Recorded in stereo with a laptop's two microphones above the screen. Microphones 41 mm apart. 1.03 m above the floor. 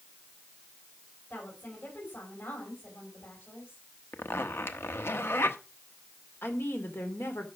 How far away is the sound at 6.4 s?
About 3 m.